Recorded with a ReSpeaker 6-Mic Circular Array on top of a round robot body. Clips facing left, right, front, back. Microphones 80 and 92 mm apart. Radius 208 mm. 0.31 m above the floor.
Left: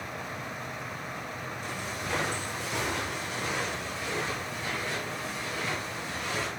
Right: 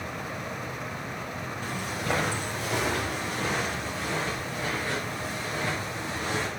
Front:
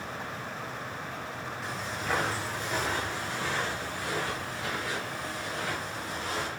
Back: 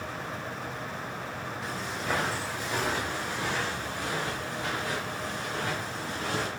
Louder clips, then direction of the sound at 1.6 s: Right 6 dB, back 1 dB; 90° right.